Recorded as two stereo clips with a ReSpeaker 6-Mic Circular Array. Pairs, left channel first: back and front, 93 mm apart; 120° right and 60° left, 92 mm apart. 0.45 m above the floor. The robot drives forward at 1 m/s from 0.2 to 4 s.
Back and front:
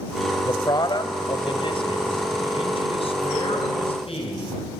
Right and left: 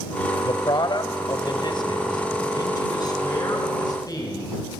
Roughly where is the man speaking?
Behind right.